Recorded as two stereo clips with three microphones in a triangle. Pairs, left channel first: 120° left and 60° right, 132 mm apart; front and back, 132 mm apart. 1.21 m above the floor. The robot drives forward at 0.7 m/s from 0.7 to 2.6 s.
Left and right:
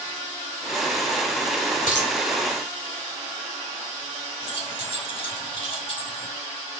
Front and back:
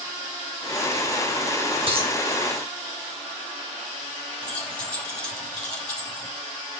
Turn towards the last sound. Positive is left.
turn(degrees=80)